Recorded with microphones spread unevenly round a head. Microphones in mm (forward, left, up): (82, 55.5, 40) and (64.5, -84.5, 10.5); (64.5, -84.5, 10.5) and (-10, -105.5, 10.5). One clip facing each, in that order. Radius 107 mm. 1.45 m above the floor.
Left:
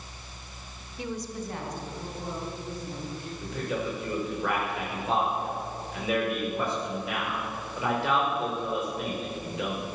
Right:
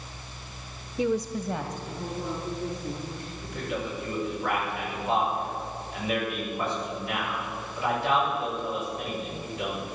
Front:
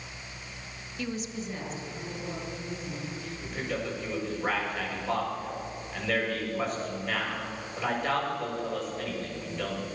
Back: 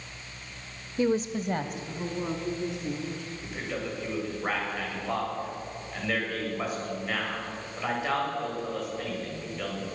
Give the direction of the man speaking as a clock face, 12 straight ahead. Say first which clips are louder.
Left 1 dB, front 2 dB; 9 o'clock.